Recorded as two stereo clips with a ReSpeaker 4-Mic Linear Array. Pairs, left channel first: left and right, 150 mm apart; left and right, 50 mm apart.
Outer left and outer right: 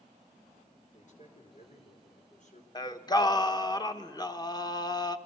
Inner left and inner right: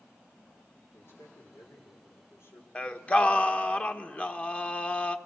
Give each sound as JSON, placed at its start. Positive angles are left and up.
{"t": 0.9, "sound": "a man speaking", "side_deg": 55, "distance_m": 5.0}
{"t": 2.8, "sound": "singing", "side_deg": 25, "distance_m": 1.0}